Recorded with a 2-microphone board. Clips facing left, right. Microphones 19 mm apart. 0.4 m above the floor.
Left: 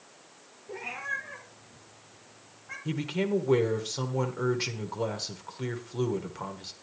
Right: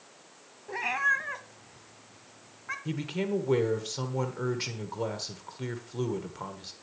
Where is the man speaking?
5° left (ahead or behind), 1.2 m.